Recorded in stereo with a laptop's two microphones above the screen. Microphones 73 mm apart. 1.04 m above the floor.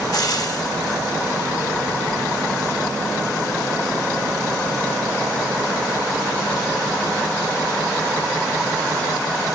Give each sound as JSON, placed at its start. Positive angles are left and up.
{"t": 0.1, "sound": "frying", "side_deg": 55, "distance_m": 2.0}